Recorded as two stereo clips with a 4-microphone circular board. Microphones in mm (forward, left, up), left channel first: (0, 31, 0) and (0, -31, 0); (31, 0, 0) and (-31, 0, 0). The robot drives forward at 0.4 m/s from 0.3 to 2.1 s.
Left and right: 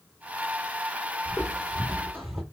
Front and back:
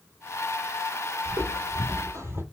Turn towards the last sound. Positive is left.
turn(degrees=-175)